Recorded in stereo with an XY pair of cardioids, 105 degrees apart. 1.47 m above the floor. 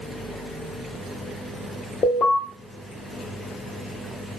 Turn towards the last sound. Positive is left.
turn(degrees=65)